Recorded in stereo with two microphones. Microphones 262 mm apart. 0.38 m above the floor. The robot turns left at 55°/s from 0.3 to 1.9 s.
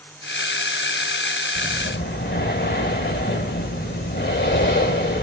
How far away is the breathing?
About 1.0 m.